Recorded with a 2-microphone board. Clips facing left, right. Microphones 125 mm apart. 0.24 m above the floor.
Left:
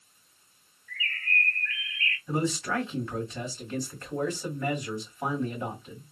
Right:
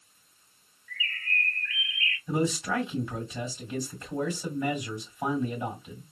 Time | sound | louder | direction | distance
0.9 | a bird | left 2 dB | 40° left (ahead or behind) | 1.7 m
2.3 | a man speaking | right 1 dB | 10° right (ahead or behind) | 1.6 m